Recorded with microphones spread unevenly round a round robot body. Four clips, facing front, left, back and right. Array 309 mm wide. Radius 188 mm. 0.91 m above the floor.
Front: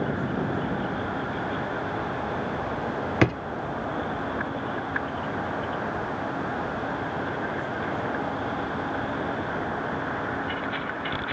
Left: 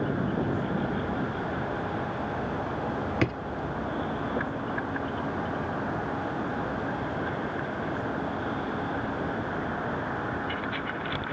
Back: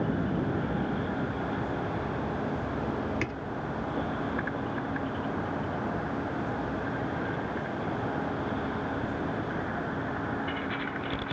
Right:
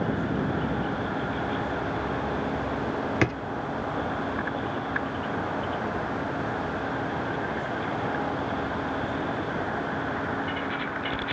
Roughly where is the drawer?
Ahead.